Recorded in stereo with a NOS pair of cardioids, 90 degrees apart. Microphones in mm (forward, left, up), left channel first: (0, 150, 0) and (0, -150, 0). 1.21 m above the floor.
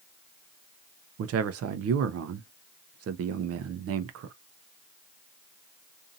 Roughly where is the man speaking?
Ahead right.